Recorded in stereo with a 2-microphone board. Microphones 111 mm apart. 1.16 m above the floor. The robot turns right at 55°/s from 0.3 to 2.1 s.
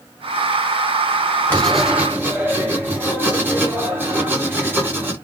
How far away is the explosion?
I don't hear an explosion.